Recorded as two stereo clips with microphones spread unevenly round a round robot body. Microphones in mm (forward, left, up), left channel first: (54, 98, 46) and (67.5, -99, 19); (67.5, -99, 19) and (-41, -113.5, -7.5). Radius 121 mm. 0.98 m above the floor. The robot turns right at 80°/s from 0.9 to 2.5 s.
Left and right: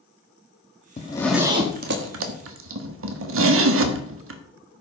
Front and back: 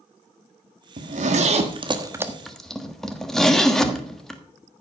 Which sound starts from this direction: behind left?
A zipper, at 1.0 s.